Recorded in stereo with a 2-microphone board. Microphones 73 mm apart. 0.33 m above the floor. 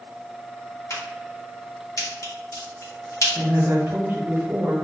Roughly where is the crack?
Left.